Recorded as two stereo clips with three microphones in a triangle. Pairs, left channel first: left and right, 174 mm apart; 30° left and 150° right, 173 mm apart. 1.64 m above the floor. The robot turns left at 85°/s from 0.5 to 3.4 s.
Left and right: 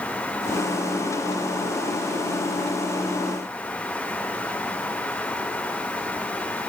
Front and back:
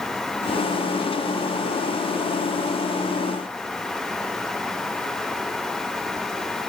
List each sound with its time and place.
Only background noise.